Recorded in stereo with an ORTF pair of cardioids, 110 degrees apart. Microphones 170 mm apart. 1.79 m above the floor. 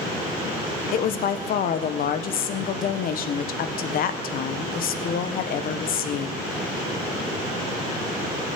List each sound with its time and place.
0.9 s a woman speaking: 60° left, 1.4 m